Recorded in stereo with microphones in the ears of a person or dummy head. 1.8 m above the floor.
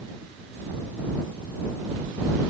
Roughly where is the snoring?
I don't hear snoring.